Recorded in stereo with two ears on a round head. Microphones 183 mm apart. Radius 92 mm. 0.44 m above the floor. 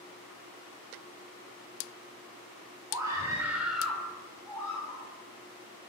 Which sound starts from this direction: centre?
A scream, at 2.9 s.